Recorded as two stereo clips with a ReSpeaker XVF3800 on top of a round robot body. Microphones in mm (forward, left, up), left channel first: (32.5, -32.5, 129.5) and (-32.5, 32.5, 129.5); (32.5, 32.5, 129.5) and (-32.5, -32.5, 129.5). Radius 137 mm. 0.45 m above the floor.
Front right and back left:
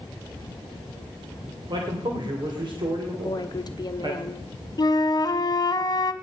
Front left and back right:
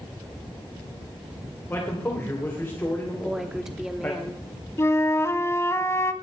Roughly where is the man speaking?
Left.